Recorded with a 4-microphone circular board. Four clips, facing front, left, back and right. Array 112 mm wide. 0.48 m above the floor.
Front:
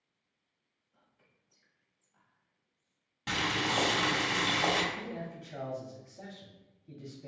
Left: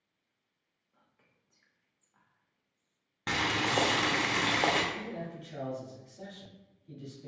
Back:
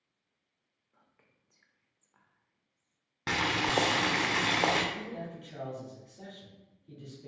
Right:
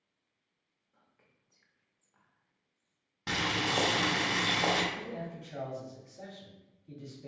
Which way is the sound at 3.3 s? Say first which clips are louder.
Left 2 dB, back 2 dB; 155° left.